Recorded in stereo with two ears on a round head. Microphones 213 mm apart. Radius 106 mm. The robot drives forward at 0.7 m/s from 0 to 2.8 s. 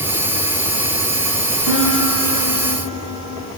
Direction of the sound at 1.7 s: 85° left.